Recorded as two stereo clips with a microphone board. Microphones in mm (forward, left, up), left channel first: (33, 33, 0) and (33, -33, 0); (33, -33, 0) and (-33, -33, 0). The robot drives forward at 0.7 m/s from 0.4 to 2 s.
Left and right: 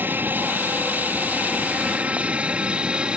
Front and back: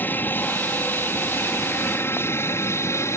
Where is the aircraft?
45° right; by 3.2 s 20° right.